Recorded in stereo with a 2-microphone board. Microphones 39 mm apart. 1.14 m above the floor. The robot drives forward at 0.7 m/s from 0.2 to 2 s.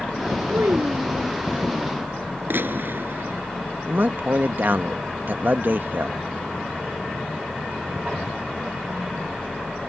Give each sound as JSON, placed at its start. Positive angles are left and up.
{"t": 0.5, "sound": "a child speaking", "side_deg": -80}
{"t": 2.5, "sound": "a gunshot", "side_deg": -65}
{"t": 3.9, "sound": "a man speaking", "side_deg": -55}